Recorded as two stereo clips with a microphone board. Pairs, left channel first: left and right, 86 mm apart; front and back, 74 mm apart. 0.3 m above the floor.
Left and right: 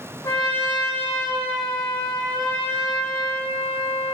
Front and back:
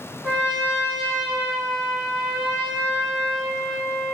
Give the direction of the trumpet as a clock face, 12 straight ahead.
9 o'clock.